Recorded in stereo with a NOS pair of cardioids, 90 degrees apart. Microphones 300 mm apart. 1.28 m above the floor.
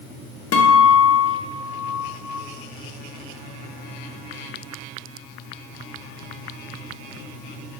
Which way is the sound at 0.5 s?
50° left.